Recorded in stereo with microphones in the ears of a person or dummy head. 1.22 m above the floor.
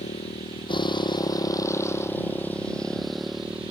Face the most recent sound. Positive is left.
turn(degrees=-10)  # may be behind; listen again after turning